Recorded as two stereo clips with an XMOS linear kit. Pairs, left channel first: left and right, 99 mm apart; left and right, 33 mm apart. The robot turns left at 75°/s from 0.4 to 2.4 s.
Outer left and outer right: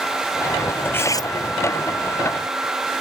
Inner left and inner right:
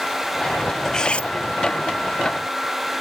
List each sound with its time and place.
0.8 s cutlery clinking: 165° left; by 1.3 s 130° left